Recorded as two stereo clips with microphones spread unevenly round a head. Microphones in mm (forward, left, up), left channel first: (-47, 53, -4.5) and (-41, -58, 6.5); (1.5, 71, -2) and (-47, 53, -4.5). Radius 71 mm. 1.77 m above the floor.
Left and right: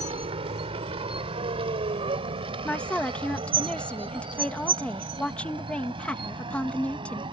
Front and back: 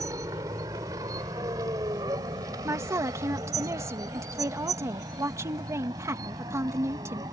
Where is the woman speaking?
175° left.